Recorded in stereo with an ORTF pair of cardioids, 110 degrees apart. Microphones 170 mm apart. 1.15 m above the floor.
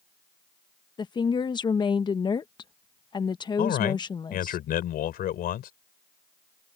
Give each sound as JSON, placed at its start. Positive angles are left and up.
{"t": 1.0, "sound": "a woman speaking", "azimuth_deg": 25}
{"t": 3.6, "sound": "a man speaking", "azimuth_deg": 60}